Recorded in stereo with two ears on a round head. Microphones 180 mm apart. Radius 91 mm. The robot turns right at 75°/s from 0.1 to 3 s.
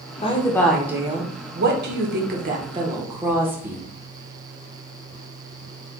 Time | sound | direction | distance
0.2 | a woman speaking | 140° left | 1.0 m